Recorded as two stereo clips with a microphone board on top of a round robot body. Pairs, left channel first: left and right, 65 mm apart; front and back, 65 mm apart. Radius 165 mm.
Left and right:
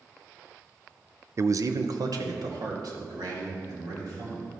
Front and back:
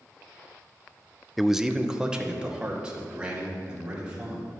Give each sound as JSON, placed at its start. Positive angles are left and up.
{"t": 1.4, "sound": "a man speaking", "azimuth_deg": -90, "distance_m": 0.6}